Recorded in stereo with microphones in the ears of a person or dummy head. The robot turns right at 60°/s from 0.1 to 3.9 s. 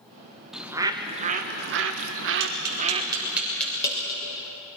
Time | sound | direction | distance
0.5 | a bird | 175° left | 1.3 m
2.4 | tapping | 70° right (ahead or behind) | 6.5 m